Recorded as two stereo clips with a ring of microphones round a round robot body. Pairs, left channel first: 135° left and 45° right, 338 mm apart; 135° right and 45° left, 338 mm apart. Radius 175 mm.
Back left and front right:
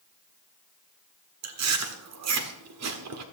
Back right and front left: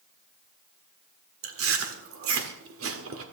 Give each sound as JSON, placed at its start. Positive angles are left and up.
{"t": 1.4, "sound": "chewing", "azimuth_deg": -5, "distance_m": 1.6}